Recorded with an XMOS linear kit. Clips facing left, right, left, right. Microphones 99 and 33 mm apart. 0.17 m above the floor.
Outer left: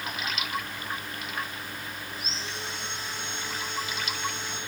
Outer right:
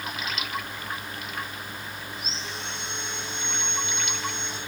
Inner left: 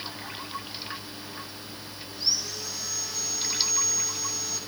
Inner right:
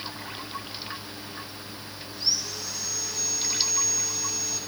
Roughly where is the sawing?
Centre.